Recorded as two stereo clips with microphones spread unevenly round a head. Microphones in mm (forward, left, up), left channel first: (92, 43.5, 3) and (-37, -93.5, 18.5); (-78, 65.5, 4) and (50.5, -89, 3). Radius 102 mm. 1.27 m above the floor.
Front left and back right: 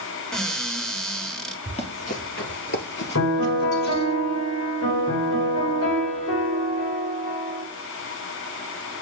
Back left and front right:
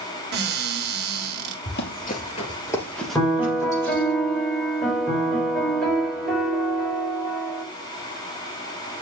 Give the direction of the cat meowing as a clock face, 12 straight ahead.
No cat meowing in this recording.